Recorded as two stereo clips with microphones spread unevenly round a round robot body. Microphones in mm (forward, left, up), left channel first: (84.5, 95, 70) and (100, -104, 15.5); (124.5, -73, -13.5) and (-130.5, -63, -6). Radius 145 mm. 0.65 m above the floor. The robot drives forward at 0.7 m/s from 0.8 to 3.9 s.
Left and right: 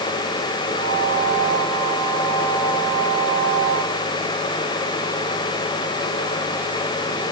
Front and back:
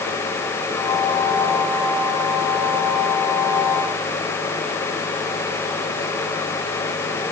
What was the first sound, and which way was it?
Only background noise.